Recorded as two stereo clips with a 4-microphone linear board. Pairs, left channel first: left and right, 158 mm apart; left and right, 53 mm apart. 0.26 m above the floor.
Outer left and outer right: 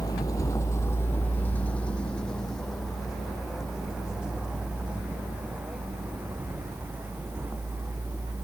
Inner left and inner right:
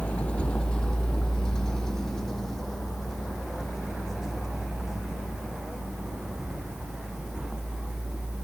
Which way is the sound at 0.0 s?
25° left (ahead or behind).